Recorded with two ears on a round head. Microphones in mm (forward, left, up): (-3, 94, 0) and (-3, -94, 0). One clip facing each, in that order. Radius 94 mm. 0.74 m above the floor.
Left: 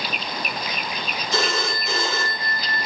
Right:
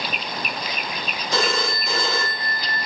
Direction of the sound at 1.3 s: 70° right (ahead or behind).